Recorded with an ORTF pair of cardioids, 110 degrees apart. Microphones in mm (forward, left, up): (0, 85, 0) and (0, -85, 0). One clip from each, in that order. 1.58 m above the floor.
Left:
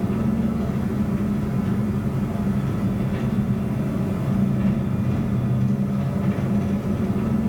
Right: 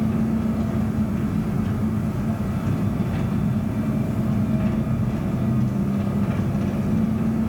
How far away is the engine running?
About 5 m.